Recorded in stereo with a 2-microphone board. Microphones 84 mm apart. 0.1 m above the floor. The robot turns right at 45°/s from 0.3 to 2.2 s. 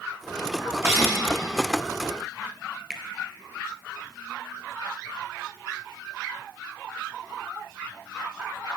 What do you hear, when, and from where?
0.8 s a cough: 30° right (ahead or behind), 2 m; by 1.1 s 40° right (ahead or behind), 2 m
2.9 s a finger snap: centre (ahead or behind), 1.3 m